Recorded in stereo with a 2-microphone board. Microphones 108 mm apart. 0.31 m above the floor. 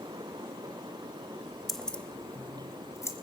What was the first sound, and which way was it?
Keys jangling, centre (ahead or behind).